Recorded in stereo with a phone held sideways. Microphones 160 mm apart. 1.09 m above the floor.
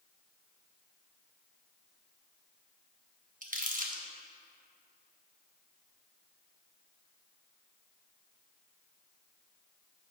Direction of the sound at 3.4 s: 60° right (ahead or behind).